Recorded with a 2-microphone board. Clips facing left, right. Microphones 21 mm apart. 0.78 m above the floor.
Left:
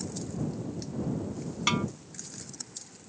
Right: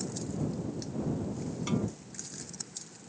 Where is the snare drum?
50° left (ahead or behind).